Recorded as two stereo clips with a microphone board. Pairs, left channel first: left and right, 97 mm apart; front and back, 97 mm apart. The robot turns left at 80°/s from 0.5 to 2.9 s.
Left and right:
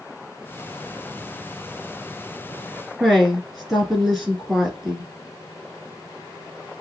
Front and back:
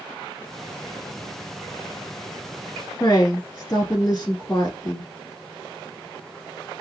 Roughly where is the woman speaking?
Ahead.